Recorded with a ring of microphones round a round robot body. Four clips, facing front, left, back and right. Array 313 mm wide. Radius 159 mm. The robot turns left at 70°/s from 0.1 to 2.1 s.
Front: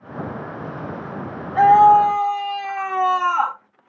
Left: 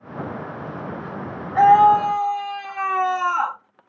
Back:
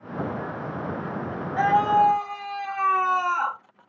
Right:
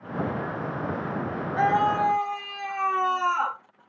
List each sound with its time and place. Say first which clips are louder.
1.6 s a scream: left 10 dB, front 8 dB; 70° left, 1.5 m; by 3.6 s 30° left, 1.5 m